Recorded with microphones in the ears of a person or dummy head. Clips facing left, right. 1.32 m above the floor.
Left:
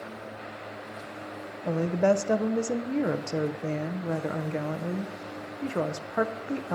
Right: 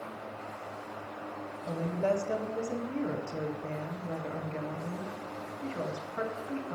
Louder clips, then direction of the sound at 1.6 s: Left 7 dB; 65° left (ahead or behind).